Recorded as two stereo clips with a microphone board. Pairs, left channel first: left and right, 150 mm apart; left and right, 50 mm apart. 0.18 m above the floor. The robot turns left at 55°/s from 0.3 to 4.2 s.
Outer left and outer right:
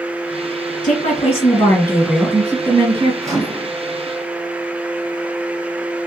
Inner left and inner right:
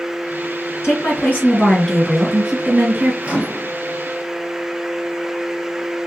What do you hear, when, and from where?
0.8 s a woman speaking: 80° left, 2 m; by 3.1 s 45° right, 2 m
3.2 s a microwave: 20° right (ahead or behind), 1.1 m; by 3.7 s 40° right (ahead or behind), 1.1 m